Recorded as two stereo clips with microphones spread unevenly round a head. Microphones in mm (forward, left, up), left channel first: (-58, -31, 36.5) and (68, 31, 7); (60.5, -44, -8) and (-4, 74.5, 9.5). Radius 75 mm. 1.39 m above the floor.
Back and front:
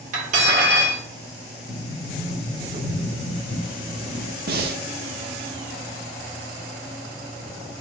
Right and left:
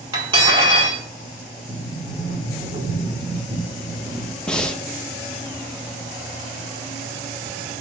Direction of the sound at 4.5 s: 30° left.